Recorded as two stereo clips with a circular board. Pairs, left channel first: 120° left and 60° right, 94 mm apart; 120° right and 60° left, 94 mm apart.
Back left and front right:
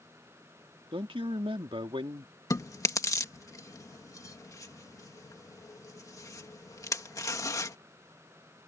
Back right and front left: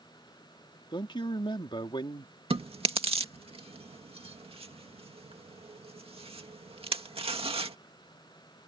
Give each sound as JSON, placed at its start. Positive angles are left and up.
{"t": 0.9, "sound": "a man speaking", "azimuth_deg": -85}
{"t": 2.5, "sound": "chewing", "azimuth_deg": 65}